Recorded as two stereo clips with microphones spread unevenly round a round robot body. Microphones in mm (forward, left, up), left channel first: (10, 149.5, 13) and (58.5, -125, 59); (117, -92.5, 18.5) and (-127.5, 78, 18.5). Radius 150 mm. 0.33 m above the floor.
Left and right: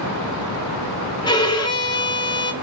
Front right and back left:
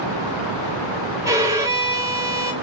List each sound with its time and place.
1.2 s a violin: 75° left, 0.7 m